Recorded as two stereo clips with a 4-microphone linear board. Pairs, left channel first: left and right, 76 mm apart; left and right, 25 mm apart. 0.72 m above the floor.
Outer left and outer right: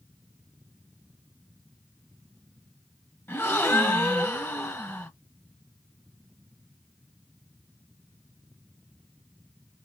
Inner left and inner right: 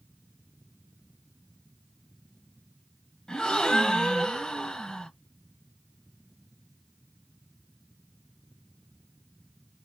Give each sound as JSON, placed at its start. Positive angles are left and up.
{"t": 3.3, "sound": "a gasp", "side_deg": 30, "distance_m": 1.1}